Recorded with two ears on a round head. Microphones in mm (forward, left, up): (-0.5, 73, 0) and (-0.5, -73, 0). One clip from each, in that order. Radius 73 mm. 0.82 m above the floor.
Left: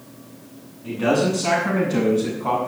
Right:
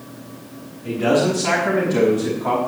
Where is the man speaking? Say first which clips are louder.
Right 2 dB; 40° left (ahead or behind), 7.5 m; by 2.7 s 45° left (ahead or behind), 5.5 m.